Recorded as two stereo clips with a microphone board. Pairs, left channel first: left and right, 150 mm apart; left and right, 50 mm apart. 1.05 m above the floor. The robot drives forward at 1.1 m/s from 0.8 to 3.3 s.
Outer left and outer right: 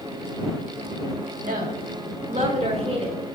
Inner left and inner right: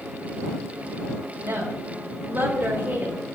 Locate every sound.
1.4 s a woman speaking: 65° right (ahead or behind), 1.6 m; by 3.2 s 40° right (ahead or behind), 2.5 m